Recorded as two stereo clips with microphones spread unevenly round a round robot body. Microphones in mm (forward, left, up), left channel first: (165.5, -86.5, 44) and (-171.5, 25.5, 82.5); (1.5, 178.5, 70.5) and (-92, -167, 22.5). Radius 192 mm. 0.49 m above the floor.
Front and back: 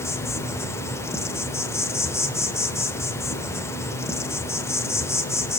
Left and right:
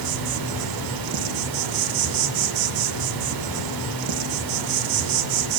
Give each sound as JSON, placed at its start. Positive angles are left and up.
{"t": 0.0, "sound": "an insect", "azimuth_deg": -100, "distance_m": 0.9}